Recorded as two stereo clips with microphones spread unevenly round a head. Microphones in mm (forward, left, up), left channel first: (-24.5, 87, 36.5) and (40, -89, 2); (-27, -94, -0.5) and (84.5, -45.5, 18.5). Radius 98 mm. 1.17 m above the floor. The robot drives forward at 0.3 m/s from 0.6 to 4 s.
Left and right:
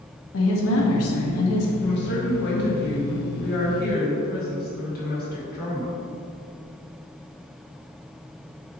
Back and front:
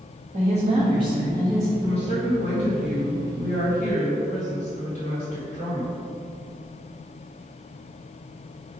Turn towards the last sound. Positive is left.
turn(degrees=155)